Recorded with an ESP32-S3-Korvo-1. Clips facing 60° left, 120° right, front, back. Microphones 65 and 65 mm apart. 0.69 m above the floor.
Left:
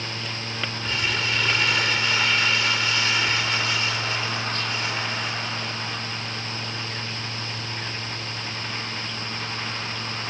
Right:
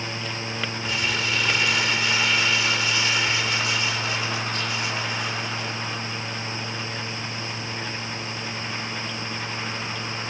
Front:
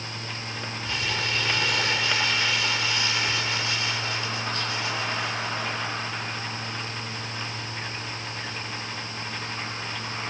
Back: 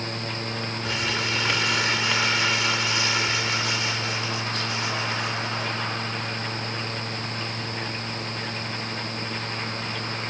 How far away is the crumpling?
About 8 m.